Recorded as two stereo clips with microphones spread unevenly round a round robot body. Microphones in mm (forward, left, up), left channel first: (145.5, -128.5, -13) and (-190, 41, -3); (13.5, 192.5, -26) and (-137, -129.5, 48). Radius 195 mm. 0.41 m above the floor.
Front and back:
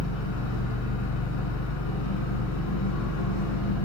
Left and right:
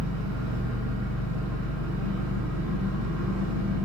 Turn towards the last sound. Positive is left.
turn(degrees=-30)